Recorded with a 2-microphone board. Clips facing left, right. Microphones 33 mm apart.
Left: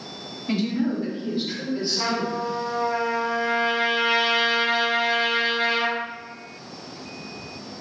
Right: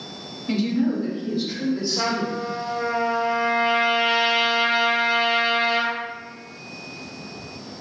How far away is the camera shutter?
I don't hear a camera shutter.